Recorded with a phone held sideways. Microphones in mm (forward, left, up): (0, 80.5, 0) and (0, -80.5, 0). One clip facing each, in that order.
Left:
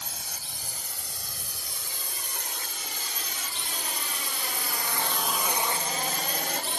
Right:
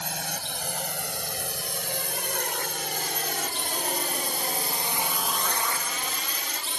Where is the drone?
80° right; by 6.8 s 60° left (ahead or behind).